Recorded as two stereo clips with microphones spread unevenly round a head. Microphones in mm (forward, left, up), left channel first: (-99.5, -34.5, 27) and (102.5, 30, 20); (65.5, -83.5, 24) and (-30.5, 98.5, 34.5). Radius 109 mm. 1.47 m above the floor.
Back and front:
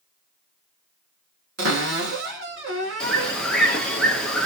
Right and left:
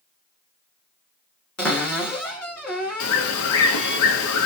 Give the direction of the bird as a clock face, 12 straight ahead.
2 o'clock.